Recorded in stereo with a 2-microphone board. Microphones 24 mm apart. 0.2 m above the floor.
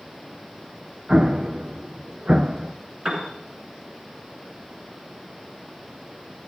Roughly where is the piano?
Right.